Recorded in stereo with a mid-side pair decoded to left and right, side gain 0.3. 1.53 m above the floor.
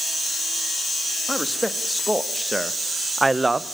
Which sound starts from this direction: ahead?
A man speaking, at 1.3 s.